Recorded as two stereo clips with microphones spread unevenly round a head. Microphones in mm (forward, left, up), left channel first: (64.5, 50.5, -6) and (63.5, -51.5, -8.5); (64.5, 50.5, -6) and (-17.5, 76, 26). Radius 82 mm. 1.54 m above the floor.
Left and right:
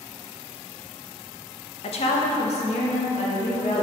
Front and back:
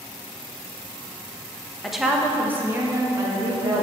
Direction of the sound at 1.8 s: 75° left.